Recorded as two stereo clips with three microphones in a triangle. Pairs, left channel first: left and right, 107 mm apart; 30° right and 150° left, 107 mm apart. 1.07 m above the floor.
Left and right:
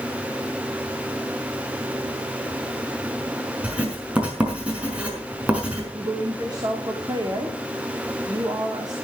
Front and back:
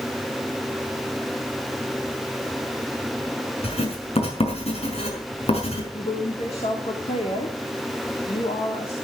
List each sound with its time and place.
3.6 s writing: 10° right, 5.5 m
5.9 s a woman speaking: 40° right, 3.5 m